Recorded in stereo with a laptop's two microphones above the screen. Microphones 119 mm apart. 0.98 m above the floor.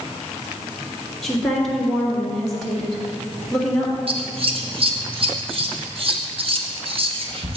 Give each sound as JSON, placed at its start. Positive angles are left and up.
{"t": 1.2, "sound": "a woman speaking", "side_deg": 0, "distance_m": 1.9}
{"t": 4.1, "sound": "scissors", "side_deg": -50, "distance_m": 0.8}